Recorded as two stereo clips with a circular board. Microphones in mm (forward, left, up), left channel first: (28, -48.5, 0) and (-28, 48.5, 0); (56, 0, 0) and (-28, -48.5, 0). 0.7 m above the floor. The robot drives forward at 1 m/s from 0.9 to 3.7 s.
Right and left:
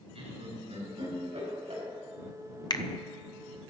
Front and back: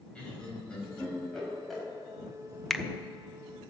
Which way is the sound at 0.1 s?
110° left.